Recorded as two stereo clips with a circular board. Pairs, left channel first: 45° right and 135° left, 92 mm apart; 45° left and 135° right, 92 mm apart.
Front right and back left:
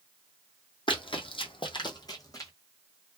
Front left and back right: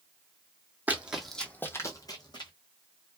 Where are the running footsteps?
65° right, 0.8 m; by 2.5 s 10° left, 1.1 m.